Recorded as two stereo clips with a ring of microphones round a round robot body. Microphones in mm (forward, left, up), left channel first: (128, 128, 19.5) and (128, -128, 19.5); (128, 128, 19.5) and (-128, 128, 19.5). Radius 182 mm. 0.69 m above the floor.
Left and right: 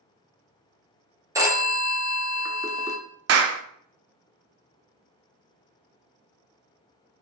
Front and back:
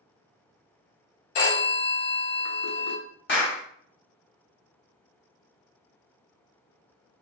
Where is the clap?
55° right, 0.5 m.